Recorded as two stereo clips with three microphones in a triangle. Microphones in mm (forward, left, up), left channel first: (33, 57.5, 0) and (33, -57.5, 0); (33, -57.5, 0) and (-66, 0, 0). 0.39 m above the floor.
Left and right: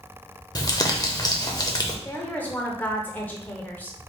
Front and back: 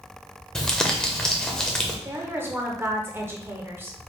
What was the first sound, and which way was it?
Crumpling, 50° left.